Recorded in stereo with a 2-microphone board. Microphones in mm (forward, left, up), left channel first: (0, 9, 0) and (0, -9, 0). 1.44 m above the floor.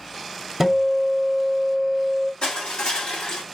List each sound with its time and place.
0.6 s a guitar: 15° right (ahead or behind), 0.8 m
2.4 s crushing: 70° left (ahead or behind), 1.9 m